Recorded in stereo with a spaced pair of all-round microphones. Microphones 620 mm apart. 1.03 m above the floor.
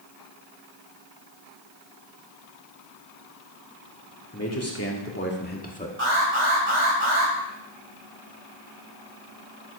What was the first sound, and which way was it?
A man speaking, 25° left (ahead or behind).